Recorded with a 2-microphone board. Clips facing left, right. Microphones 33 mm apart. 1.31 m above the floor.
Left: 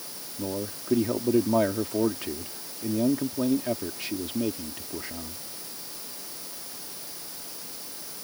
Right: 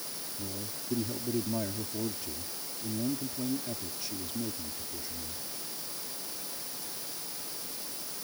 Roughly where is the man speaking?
Left.